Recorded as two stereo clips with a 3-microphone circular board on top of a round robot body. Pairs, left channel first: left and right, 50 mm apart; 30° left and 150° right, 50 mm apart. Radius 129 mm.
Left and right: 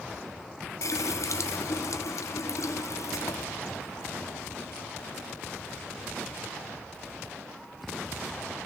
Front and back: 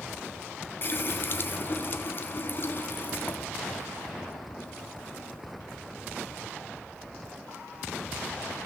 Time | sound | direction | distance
0.8 | a running tap | 75° left | 0.8 m